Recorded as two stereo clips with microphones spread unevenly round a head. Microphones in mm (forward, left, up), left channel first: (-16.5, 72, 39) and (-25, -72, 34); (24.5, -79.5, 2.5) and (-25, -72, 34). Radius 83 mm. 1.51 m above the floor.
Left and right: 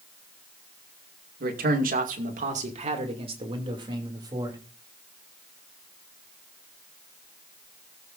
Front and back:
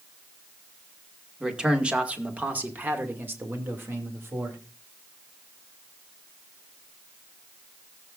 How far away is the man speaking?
About 2 m.